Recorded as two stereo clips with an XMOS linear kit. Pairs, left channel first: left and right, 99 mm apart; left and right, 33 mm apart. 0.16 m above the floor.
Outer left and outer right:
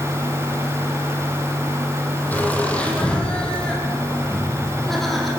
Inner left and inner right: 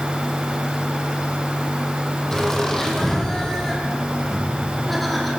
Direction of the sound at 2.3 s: 15° left (ahead or behind).